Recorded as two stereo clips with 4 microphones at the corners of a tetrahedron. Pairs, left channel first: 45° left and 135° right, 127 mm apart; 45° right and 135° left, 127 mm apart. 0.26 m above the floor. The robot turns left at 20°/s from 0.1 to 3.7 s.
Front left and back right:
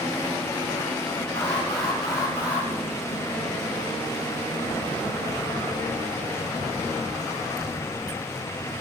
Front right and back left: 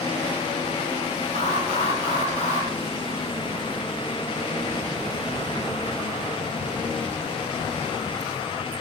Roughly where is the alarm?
Ahead right.